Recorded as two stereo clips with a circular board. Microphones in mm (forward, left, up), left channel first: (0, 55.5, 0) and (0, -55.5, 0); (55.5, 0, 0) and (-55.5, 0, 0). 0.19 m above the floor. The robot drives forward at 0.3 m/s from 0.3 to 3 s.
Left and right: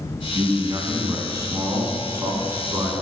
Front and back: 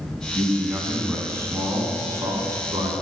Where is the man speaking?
115° right, 1.4 m; by 2.9 s 145° right, 1.8 m.